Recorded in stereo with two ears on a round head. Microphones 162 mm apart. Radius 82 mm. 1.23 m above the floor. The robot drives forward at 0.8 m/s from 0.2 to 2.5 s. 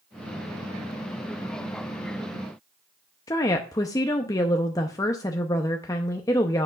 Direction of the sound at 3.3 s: 20° left (ahead or behind).